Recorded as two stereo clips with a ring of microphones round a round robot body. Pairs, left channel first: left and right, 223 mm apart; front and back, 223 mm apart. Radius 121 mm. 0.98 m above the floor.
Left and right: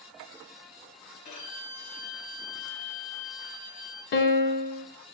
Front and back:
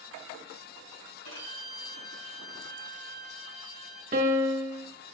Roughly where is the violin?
Ahead left.